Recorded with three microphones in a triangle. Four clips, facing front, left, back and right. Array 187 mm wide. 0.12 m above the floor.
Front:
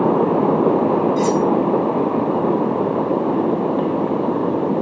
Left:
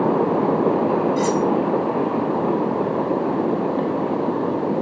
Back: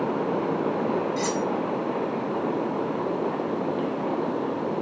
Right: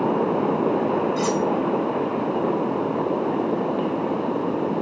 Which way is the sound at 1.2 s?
130° right.